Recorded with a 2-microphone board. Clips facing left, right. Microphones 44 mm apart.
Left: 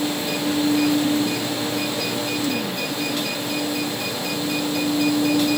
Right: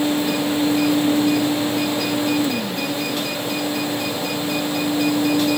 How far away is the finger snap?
I don't hear a finger snap.